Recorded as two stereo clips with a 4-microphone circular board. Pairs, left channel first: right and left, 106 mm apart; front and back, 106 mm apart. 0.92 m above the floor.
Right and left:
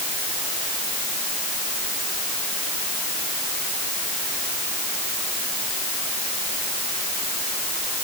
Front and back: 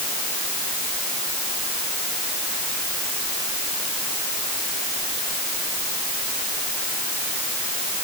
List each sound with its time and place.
Only background noise.